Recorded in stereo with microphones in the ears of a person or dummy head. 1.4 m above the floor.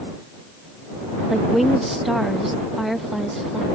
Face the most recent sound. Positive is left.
turn(degrees=0)  # may be behind; listen again after turning